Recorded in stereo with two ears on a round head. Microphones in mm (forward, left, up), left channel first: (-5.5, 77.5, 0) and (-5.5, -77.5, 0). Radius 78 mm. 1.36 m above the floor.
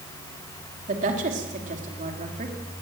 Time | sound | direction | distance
0.9 | a woman speaking | 45° right (ahead or behind) | 3.5 m